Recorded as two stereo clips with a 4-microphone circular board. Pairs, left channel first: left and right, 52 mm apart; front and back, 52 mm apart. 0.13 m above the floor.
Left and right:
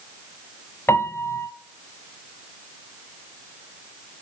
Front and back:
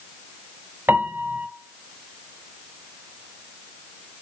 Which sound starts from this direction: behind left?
A piano, at 0.9 s.